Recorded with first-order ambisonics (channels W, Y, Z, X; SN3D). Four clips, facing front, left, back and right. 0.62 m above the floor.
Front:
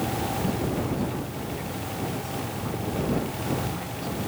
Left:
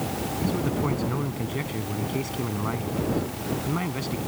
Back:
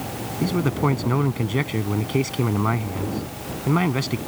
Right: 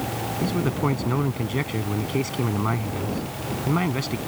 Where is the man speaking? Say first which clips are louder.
Right 3 dB, back 5 dB; 160° right.